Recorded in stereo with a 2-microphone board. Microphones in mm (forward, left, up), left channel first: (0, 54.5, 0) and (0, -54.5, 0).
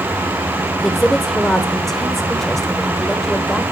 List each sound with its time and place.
0.8 s a woman speaking: centre (ahead or behind), 1.0 m